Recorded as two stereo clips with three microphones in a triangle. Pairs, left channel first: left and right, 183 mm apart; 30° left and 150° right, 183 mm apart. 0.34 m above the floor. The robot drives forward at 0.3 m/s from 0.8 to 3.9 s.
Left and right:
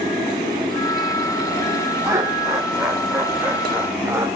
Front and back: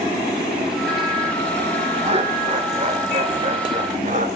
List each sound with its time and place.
2.0 s laughter: 150° right, 1.7 m; by 4.3 s 160° right, 2 m